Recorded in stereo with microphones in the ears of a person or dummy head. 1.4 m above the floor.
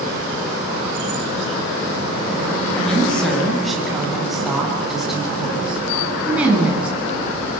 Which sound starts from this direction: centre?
A woman speaking, at 2.8 s.